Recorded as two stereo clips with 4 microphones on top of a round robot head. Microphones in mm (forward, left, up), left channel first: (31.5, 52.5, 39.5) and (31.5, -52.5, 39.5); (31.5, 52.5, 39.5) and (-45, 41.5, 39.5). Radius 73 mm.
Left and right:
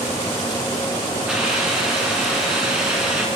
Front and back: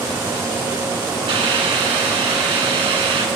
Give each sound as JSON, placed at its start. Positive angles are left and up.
{"t": 1.3, "sound": "a hiss", "azimuth_deg": -170, "distance_m": 3.0}